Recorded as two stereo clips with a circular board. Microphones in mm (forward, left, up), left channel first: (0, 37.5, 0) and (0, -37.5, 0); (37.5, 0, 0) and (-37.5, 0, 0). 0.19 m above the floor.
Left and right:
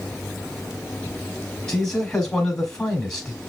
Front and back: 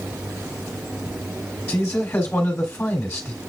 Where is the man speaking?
30° left, 1.4 m.